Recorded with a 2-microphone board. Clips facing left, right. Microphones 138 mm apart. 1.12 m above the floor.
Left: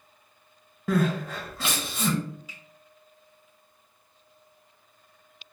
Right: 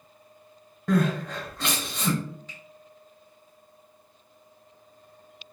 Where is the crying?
5° left (ahead or behind), 0.6 m.